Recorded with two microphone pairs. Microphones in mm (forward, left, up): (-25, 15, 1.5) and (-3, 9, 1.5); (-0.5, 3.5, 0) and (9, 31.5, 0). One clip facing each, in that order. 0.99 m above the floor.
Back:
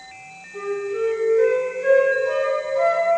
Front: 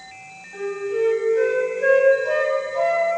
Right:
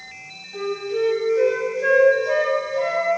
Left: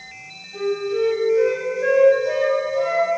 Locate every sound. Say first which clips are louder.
0.5 s a flute: front 1 dB, left 2 dB; 20° right, 5.5 m